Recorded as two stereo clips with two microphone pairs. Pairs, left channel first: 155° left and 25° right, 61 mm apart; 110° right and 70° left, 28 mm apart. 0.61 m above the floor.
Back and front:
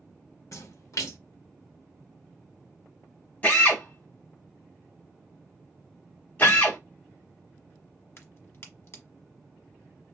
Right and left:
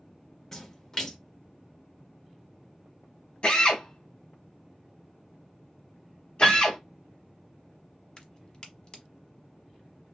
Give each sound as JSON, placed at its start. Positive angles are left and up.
{"t": 0.5, "sound": "a splash", "azimuth_deg": 175, "distance_m": 0.8}
{"t": 3.4, "sound": "a drill", "azimuth_deg": -150, "distance_m": 1.2}
{"t": 6.4, "sound": "a piano", "azimuth_deg": -175, "distance_m": 1.6}
{"t": 8.2, "sound": "a crack", "azimuth_deg": -170, "distance_m": 1.0}